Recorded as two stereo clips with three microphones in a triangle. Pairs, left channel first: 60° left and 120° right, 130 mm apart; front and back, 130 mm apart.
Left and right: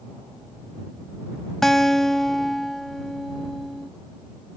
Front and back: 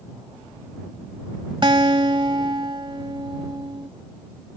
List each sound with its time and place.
1.6 s a guitar: 145° left